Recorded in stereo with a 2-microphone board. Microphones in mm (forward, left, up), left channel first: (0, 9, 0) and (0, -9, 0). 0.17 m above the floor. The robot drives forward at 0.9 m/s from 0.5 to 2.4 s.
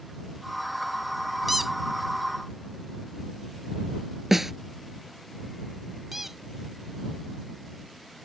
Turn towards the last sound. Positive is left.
turn(degrees=-15)  # may be behind; listen again after turning